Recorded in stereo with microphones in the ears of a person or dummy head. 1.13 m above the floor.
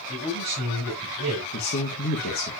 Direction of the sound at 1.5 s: 45° left (ahead or behind).